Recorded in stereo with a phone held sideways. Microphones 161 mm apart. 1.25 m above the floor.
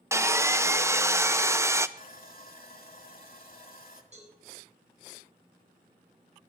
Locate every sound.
0.1 s sawing: 15° right (ahead or behind), 0.5 m
2.0 s sawing: 60° left (ahead or behind), 2.0 m
4.1 s a cowbell: 45° right (ahead or behind), 8.5 m